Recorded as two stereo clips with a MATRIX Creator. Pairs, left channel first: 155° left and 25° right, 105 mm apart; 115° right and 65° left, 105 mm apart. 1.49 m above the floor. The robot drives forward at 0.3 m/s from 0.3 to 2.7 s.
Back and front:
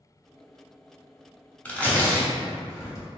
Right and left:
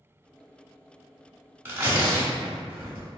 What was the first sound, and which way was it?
Tearing paper, 105° left.